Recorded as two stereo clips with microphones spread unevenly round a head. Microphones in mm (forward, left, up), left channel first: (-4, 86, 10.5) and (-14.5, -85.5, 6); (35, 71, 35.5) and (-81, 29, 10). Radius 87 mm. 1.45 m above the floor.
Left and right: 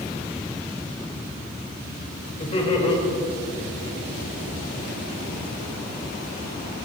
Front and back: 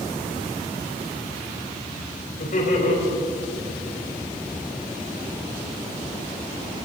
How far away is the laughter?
About 4.5 m.